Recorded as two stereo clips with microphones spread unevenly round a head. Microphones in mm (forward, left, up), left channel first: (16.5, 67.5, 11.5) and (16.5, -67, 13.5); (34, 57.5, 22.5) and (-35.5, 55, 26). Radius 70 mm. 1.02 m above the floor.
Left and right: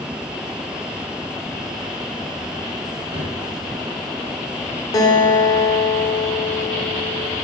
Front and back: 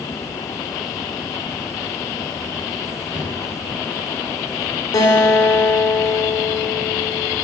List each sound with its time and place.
3.1 s a drawer: 145° right, 3 m
4.9 s a guitar: 30° left, 1.8 m